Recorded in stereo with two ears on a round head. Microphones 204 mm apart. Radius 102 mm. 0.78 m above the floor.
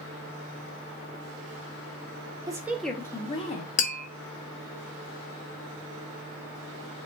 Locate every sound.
2.5 s a woman speaking: 15° right (ahead or behind), 0.7 m; by 3.7 s 30° left (ahead or behind), 0.9 m
3.8 s tapping: 35° left (ahead or behind), 1.0 m